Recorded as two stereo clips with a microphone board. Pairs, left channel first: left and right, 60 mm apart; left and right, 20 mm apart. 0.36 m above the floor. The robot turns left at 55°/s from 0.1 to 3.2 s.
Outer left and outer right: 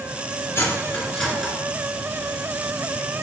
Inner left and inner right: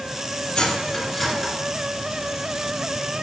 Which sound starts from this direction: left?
Cutlery clinking, at 0.6 s.